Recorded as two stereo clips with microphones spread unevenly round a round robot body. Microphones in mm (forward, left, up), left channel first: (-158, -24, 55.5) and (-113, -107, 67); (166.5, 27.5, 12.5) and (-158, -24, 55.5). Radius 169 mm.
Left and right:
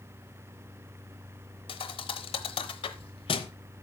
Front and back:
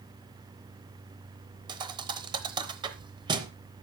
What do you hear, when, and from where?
1.7 s a thud: 120° left, 0.7 m